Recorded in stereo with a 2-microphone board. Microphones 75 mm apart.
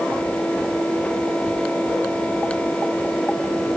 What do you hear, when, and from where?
Only background noise.